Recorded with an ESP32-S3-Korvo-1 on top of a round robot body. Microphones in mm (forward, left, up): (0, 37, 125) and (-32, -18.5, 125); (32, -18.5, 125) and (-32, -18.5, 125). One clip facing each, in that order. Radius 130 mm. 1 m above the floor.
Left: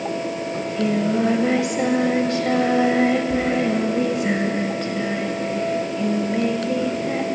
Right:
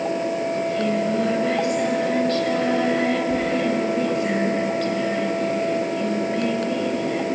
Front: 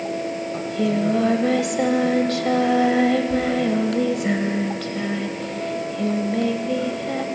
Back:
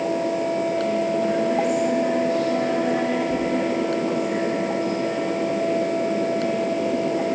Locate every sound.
0.5 s singing: 15° right, 1.6 m